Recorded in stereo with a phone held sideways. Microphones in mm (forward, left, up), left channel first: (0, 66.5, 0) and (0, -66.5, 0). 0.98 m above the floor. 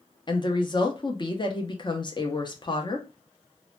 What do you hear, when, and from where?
0.3 s a woman speaking: 35° left (ahead or behind), 0.6 m